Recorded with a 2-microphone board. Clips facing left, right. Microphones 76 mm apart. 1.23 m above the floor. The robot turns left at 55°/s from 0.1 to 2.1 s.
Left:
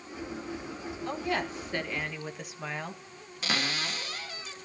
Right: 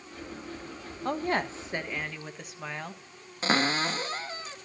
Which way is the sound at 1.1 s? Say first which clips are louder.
Right 3 dB; 125° right.